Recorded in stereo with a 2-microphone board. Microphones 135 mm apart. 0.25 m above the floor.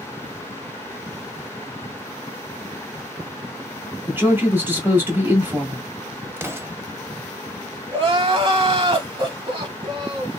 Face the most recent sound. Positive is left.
turn(degrees=-45)  # may be behind; listen again after turning